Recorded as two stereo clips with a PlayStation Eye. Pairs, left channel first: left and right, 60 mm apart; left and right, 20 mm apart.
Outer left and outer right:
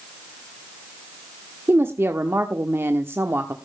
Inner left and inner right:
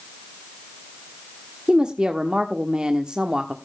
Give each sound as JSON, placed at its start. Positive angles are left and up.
{"t": 1.7, "sound": "a woman speaking", "side_deg": -45, "distance_m": 1.1}